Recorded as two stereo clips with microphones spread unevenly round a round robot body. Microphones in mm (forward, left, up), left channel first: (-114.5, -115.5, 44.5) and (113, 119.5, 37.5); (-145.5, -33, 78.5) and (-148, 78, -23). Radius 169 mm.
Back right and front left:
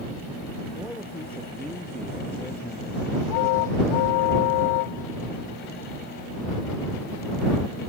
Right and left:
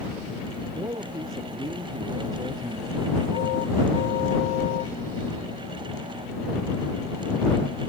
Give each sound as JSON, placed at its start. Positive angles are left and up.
{"t": 0.7, "sound": "a man speaking", "azimuth_deg": 140}